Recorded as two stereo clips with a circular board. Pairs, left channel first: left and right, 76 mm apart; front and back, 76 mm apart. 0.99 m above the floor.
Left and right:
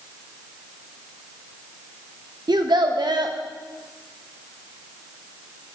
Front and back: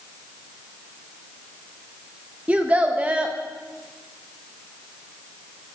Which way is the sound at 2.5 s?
105° right.